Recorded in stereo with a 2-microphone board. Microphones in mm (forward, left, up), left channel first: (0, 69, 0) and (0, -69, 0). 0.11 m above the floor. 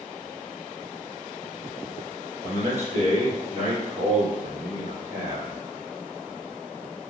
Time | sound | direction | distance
2.4 | a man speaking | 45° right (ahead or behind) | 1.9 m